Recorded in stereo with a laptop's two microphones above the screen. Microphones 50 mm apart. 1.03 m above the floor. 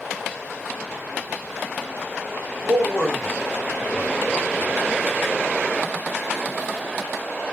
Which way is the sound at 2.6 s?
45° right (ahead or behind).